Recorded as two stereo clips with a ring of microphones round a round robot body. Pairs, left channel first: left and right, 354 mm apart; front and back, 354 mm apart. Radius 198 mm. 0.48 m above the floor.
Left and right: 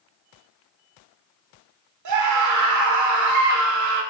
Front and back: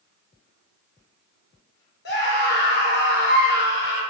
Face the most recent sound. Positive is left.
turn(degrees=-60)